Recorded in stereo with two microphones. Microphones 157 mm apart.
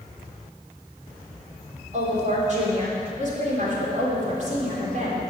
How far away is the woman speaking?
About 3.5 m.